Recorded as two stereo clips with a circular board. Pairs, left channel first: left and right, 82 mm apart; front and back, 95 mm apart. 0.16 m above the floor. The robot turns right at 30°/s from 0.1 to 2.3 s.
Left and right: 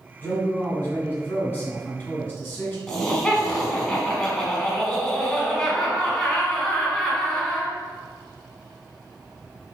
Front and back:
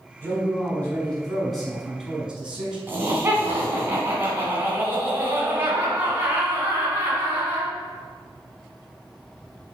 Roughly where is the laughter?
Behind.